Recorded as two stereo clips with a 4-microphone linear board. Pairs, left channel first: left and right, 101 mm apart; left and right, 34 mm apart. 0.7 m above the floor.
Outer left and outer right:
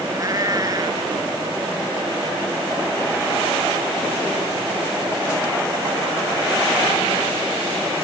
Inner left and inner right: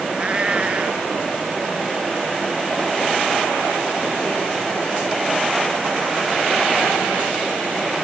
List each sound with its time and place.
0.1 s a cat meowing: 35° right (ahead or behind)